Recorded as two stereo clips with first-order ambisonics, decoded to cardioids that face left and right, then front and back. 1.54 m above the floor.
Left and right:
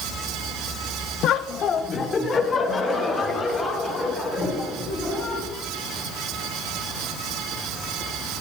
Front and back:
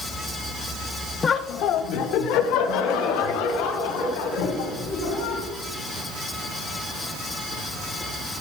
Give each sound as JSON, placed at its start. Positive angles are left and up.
{"t": 1.2, "sound": "laughter", "azimuth_deg": 65, "distance_m": 0.6}